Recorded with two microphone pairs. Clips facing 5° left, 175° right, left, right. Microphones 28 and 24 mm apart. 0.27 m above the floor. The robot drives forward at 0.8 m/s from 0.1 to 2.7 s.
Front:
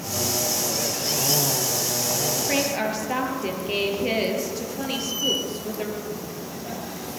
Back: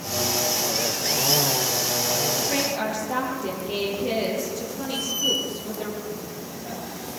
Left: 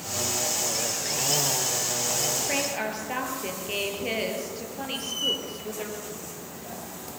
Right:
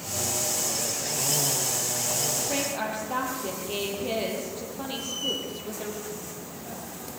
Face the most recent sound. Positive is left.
turn(degrees=85)